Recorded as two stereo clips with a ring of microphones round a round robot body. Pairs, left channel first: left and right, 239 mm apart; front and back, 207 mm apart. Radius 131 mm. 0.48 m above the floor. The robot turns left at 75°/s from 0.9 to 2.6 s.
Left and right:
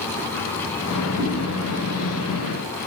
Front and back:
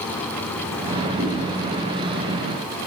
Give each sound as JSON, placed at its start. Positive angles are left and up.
{"t": 1.2, "sound": "a whoosh", "azimuth_deg": -160, "distance_m": 2.0}